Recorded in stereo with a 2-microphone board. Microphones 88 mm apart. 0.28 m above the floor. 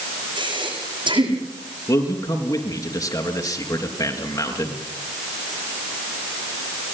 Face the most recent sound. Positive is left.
turn(degrees=40)  # may be behind; listen again after turning